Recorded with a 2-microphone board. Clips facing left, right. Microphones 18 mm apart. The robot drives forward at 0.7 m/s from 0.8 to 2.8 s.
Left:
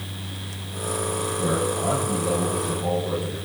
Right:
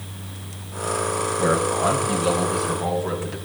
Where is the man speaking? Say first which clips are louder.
Right 4 dB; 65° right (ahead or behind), 4 m; by 3.4 s 55° right (ahead or behind), 4.5 m.